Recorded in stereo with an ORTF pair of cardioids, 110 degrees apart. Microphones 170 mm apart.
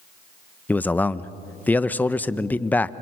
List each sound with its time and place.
0.7 s a man speaking: 10° left, 0.8 m